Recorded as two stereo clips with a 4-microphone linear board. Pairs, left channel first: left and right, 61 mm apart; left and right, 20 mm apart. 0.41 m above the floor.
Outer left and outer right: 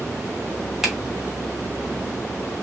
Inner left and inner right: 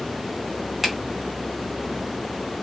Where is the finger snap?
5° right (ahead or behind), 1.3 m.